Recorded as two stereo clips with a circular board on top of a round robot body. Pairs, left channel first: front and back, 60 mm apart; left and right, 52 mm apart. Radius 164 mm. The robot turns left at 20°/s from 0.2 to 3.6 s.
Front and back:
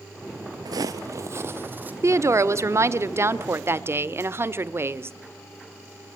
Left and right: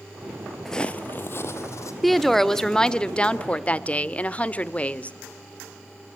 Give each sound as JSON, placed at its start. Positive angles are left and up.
{"t": 0.7, "sound": "footsteps", "azimuth_deg": 175, "distance_m": 0.5}
{"t": 2.0, "sound": "a woman speaking", "azimuth_deg": 180, "distance_m": 1.4}